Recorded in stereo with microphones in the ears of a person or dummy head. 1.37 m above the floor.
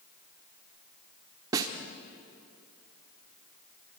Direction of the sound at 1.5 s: 15° right (ahead or behind).